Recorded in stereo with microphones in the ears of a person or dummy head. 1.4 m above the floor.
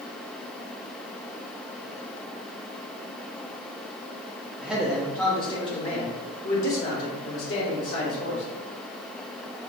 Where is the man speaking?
5° right (ahead or behind), 1.1 m; by 8.4 s 75° left (ahead or behind), 2 m.